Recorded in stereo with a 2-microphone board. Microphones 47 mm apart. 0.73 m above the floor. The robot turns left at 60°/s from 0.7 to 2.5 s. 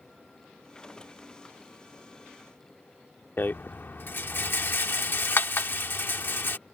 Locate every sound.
3.4 s a rattle: 45° left (ahead or behind)